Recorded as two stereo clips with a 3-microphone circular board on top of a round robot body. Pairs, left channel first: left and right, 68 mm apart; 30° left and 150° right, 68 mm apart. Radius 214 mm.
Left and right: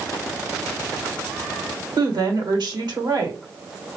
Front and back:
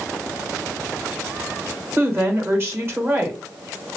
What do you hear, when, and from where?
2.0 s a woman speaking: 95° right, 1.5 m